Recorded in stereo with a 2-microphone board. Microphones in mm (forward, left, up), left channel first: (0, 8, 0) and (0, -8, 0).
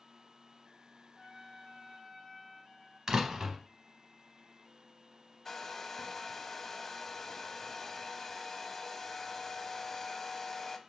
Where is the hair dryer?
20° left (ahead or behind), 0.5 m.